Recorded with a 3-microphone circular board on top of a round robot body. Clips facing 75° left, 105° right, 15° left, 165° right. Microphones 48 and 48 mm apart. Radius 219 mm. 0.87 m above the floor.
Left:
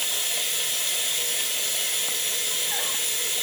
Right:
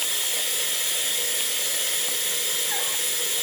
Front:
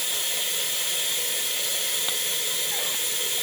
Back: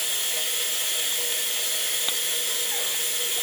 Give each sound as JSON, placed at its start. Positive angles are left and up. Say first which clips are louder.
{"t": 0.0, "sound": "running water", "louder": "even, even", "azimuth_deg": -100, "distance_m": 0.8}